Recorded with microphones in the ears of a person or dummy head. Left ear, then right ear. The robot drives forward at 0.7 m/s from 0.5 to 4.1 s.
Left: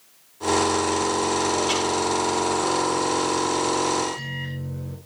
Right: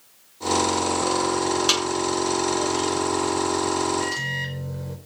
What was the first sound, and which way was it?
A snare drum, 70° right (ahead or behind).